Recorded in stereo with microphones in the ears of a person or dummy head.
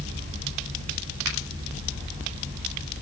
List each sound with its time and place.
1.2 s a finger snap: 85° right, 4.5 m